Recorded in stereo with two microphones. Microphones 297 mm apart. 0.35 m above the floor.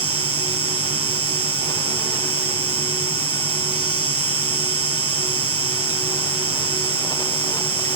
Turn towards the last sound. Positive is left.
turn(degrees=-50)  # may be behind; listen again after turning